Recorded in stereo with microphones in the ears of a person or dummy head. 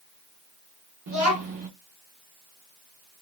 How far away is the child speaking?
About 0.5 m.